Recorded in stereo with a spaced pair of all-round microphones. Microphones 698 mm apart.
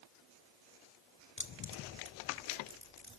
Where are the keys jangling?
15° left (ahead or behind), 1.5 m.